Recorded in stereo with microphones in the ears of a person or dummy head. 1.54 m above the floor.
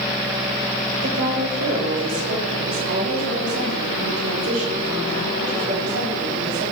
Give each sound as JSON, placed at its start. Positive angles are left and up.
{"t": 1.0, "sound": "a woman speaking", "side_deg": -60, "distance_m": 4.0}